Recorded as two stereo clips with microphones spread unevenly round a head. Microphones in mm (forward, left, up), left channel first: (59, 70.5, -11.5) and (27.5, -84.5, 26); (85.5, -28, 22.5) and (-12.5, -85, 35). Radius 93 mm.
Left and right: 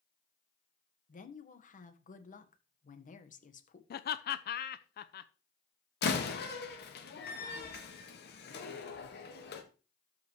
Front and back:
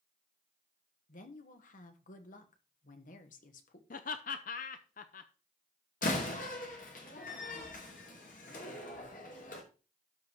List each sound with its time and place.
1.1 s a woman speaking: 35° left, 1.3 m
3.9 s laughter: 50° left, 0.6 m
6.0 s a door slam: 55° left, 1.6 m